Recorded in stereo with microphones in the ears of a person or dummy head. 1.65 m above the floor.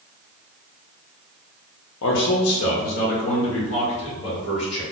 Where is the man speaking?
70° left (ahead or behind), 0.6 m; by 4.8 s 30° left (ahead or behind), 1.9 m.